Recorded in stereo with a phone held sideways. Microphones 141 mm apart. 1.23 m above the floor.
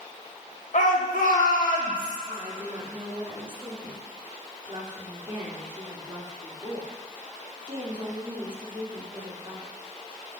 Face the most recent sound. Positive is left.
turn(degrees=-35)  # may be behind; listen again after turning